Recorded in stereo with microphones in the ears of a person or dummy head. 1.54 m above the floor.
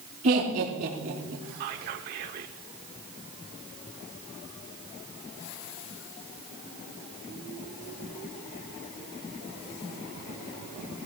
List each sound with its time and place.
0.2 s laughter: 40° right (ahead or behind), 5 m
1.6 s whispering: 50° right (ahead or behind), 0.8 m